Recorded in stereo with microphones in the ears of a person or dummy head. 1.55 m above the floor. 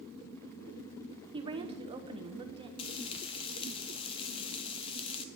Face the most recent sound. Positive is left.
turn(degrees=30)  # may be behind; listen again after turning